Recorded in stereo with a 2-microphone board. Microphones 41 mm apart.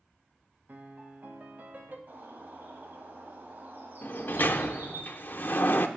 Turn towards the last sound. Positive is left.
turn(degrees=50)  # may be behind; listen again after turning